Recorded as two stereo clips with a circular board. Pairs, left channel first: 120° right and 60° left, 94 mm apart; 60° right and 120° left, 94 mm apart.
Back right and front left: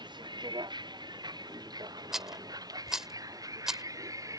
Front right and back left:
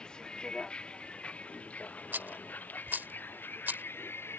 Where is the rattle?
140° left.